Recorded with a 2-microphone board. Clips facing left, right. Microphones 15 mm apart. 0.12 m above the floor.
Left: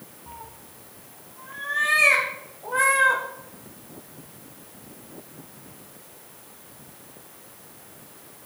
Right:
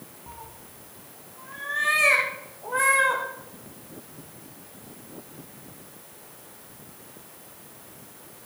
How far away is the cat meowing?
About 2.5 m.